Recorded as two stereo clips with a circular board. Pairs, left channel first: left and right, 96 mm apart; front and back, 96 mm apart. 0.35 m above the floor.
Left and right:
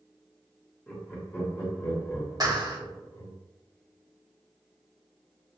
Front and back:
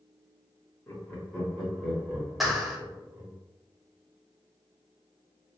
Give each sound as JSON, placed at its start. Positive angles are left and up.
{"t": 0.9, "sound": "laughter", "azimuth_deg": 35, "distance_m": 1.2}
{"t": 2.4, "sound": "a clap", "azimuth_deg": -95, "distance_m": 0.9}